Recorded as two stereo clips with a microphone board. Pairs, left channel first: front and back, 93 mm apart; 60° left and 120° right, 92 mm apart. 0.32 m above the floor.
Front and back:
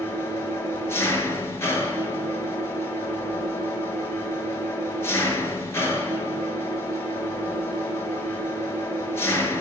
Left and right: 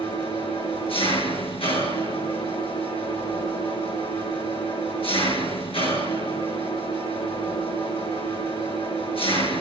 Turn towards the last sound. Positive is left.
turn(degrees=60)